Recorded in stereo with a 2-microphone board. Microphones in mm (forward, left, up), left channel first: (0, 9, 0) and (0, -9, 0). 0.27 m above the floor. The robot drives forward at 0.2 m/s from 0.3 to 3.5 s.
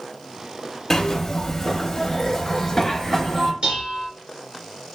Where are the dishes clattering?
60° right (ahead or behind), 2 m.